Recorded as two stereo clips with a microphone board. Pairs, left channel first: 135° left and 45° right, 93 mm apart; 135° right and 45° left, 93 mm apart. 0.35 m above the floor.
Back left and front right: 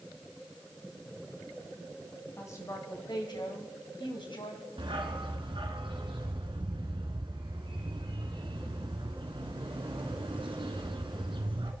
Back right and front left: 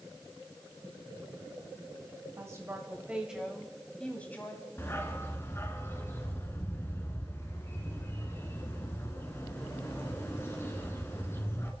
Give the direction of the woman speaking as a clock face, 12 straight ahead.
9 o'clock.